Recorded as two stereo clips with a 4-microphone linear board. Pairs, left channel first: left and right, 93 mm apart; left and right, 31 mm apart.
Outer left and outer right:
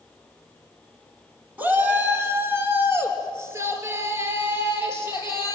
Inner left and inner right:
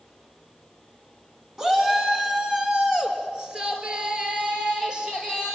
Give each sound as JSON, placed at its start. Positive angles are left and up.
{"t": 1.6, "sound": "a shout", "side_deg": -20, "distance_m": 2.0}